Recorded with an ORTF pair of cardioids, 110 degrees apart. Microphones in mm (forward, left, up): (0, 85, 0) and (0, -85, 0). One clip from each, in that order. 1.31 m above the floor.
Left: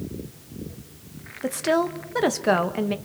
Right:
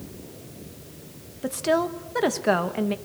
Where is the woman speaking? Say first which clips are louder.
Left 1 dB; 10° left, 1.2 m.